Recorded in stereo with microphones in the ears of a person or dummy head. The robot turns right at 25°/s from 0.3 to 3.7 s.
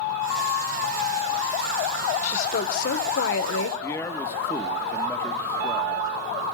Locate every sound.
2.2 s a woman speaking: 40° left, 1.9 m; by 3.7 s 75° left, 1.9 m
3.8 s a man speaking: 15° left (ahead or behind), 1.7 m